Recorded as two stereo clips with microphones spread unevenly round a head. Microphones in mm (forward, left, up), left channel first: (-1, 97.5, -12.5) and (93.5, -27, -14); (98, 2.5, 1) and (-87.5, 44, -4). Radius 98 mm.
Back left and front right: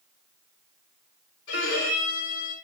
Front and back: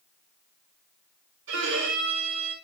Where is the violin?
150° left, 4 m.